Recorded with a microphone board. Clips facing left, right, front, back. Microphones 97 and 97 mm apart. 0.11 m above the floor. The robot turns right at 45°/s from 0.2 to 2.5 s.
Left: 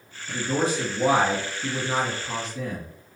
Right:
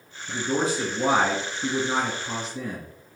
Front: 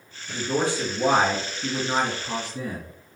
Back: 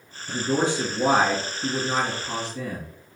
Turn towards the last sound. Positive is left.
turn(degrees=-55)